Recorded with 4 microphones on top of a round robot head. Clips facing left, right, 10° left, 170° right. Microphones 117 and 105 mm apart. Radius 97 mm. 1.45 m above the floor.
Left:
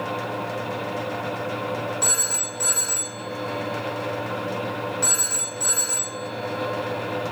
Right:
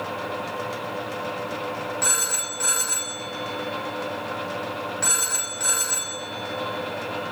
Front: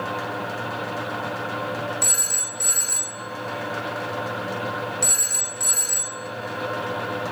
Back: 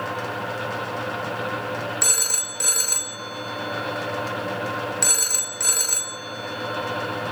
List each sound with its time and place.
2.0 s a phone ringing: 175° left, 0.6 m